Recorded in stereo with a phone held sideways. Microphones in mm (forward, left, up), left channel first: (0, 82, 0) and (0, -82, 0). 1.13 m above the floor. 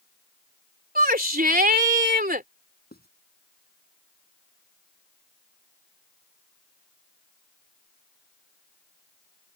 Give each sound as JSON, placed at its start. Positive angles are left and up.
{"t": 0.9, "sound": "a shout", "side_deg": -65}
{"t": 2.9, "sound": "writing", "side_deg": 70}